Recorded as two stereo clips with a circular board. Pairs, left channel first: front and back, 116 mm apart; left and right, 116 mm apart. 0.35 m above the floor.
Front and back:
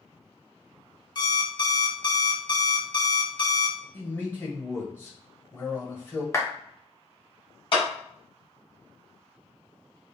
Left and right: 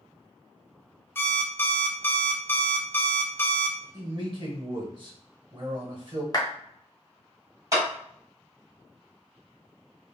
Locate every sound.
1.1 s an alarm clock: 25° left, 0.5 m
3.9 s a man speaking: 65° right, 1.1 m
6.3 s a clap: 55° left, 0.9 m
7.7 s a clap: 30° right, 1.4 m